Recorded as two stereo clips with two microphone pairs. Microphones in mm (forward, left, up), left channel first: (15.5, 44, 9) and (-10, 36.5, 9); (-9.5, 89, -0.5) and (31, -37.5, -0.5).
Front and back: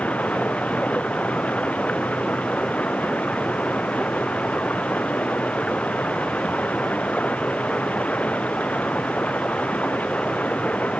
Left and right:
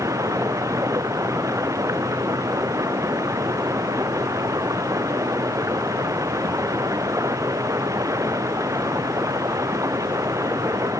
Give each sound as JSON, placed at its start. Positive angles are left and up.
{"t": 0.0, "sound": "running water", "azimuth_deg": -5}